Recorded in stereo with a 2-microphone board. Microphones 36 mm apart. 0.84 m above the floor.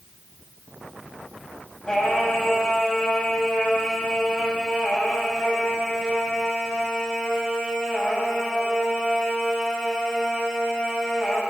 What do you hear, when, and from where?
1.9 s singing: 20° left (ahead or behind), 5.5 m